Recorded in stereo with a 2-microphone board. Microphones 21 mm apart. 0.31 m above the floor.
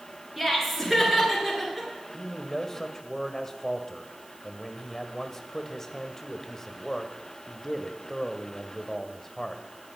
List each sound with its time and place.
0.4 s laughter: 5° right (ahead or behind), 4.5 m
2.1 s a man speaking: 20° left (ahead or behind), 1.2 m